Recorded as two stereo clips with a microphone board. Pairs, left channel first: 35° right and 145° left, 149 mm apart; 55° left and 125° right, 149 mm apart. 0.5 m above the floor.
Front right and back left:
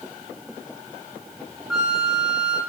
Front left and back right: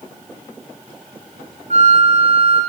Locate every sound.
1.7 s a flute: 60° left, 0.7 m